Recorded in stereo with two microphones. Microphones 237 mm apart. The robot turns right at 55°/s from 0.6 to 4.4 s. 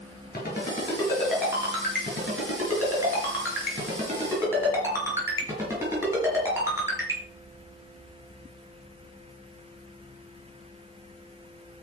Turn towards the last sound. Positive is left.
turn(degrees=-10)  # may be behind; listen again after turning